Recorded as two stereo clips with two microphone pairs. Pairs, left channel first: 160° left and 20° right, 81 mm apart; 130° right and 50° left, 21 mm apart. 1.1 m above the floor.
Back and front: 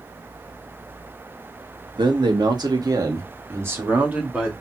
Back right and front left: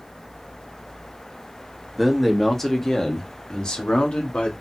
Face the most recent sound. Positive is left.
turn(degrees=-95)